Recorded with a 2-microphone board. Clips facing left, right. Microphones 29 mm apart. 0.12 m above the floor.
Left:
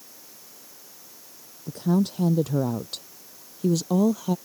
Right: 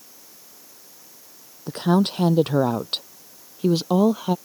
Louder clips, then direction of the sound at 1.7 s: Right 4 dB; 55° right (ahead or behind).